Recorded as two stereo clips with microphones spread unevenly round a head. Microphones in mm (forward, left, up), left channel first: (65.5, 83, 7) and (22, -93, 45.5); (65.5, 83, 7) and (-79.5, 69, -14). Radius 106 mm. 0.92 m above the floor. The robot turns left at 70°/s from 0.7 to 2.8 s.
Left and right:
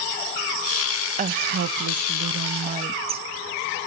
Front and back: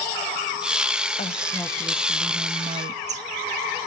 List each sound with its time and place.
1.2 s a woman speaking: 55° right, 0.6 m; by 3.3 s 165° right, 0.6 m